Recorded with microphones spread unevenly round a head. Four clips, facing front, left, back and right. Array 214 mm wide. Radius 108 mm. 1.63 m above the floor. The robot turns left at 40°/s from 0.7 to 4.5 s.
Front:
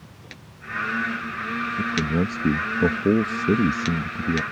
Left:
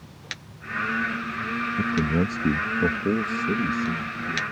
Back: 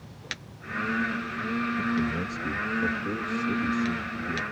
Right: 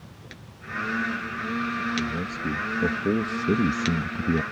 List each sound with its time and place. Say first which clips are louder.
1.8 s a man speaking: left 4 dB, front 4 dB; 55° left; by 4.4 s 50° right